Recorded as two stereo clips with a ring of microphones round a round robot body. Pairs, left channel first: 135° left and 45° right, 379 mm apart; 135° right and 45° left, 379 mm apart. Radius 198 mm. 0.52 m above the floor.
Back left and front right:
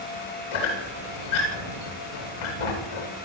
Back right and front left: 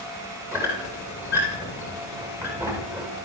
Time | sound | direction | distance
0.5 | a squeak | 130° left | 9.5 m